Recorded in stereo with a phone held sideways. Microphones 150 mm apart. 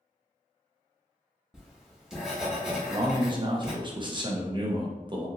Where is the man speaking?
35° right (ahead or behind), 0.6 m.